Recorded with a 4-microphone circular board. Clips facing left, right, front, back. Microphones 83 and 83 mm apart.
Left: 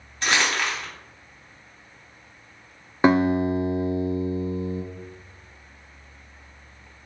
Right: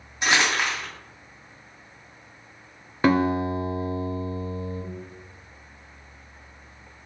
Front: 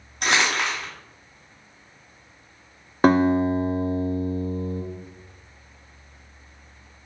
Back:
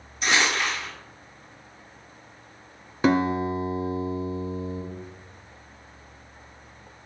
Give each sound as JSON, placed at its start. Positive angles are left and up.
{"t": 0.2, "sound": "crumpling", "azimuth_deg": -20, "distance_m": 1.7}
{"t": 3.0, "sound": "a guitar", "azimuth_deg": 25, "distance_m": 0.7}